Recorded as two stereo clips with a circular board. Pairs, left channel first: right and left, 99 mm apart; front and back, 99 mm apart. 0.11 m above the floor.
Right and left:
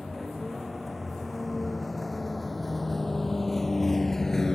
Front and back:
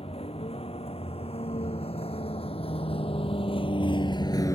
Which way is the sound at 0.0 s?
Straight ahead.